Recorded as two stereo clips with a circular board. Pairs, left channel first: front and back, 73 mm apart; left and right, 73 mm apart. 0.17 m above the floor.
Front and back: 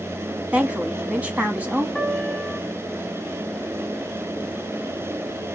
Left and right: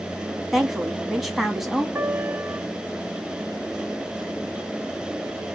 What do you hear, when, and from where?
0.5 s a woman speaking: 175° right, 1.1 m
1.9 s a piano: 70° right, 1.4 m